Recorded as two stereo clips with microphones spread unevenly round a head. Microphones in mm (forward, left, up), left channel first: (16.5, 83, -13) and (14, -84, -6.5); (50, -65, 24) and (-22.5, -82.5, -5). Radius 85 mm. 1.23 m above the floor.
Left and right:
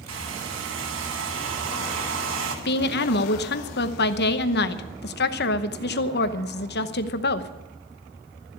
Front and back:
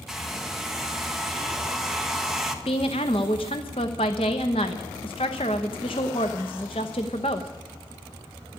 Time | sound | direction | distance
0.1 | a hair dryer | 85° right | 1.7 m
2.6 | a woman speaking | 60° left | 0.9 m